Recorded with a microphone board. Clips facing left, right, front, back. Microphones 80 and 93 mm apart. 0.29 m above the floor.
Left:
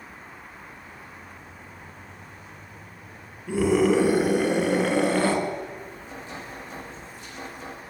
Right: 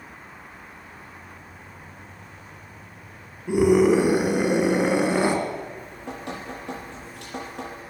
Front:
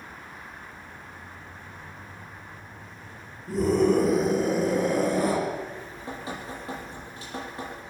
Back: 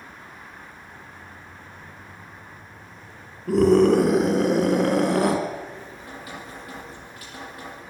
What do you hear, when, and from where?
3.5 s a scream: 160° right, 4.5 m
5.8 s dripping: 65° right, 8.5 m